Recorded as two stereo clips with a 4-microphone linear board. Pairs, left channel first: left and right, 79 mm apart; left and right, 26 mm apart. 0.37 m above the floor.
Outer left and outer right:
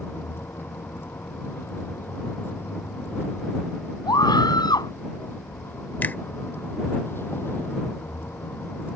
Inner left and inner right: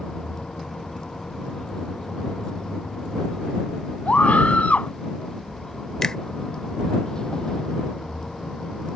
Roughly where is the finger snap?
Left.